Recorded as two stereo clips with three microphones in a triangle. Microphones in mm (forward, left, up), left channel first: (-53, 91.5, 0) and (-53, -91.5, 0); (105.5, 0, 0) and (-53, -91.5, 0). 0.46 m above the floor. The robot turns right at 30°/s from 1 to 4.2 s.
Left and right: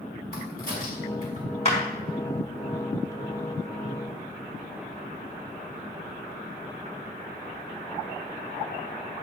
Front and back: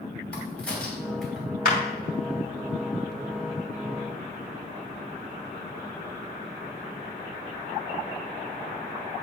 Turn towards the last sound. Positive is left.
turn(degrees=120)